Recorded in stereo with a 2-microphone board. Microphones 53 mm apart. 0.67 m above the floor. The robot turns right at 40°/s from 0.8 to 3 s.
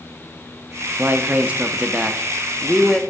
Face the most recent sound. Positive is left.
turn(degrees=10)